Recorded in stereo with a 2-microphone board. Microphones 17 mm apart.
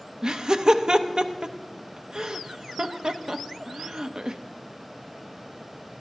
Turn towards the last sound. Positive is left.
turn(degrees=-40)  # may be behind; listen again after turning